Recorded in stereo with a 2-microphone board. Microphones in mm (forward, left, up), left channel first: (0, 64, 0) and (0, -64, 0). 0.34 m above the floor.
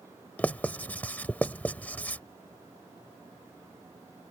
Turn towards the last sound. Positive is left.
turn(degrees=10)  # may be behind; listen again after turning